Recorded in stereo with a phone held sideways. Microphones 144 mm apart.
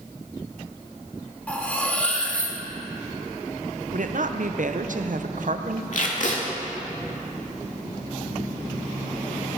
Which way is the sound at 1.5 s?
10° left (ahead or behind).